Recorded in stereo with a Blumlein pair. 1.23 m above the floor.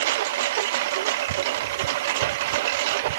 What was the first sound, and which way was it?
A lawn mower, 55° right.